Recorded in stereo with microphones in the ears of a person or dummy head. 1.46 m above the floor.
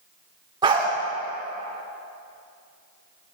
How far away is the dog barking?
About 2.0 m.